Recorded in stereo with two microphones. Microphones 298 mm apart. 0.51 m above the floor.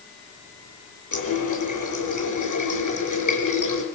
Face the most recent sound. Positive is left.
turn(degrees=85)